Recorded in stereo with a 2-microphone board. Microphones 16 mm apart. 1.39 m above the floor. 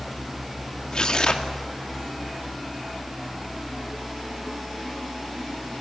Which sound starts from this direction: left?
Tearing paper, at 0.9 s.